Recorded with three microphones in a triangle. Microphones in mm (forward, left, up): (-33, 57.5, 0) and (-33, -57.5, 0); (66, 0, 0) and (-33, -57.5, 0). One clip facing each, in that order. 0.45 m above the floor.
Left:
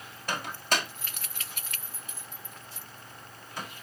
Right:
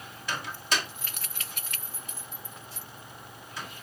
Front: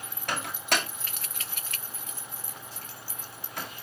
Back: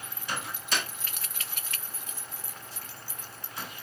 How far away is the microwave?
About 2.5 m.